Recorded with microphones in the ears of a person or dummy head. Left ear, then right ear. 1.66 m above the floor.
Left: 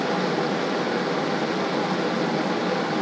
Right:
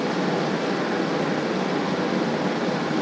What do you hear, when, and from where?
Only background noise.